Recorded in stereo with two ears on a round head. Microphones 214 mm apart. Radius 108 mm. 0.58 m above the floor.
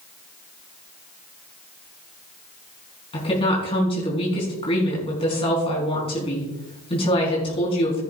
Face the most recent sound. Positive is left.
turn(degrees=25)  # may be behind; listen again after turning